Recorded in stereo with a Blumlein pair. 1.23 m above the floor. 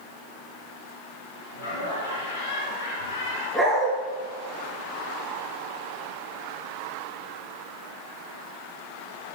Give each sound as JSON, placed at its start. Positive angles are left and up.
{"t": 1.5, "sound": "laughter", "azimuth_deg": 50, "distance_m": 5.0}
{"t": 3.5, "sound": "a dog barking", "azimuth_deg": -5, "distance_m": 5.0}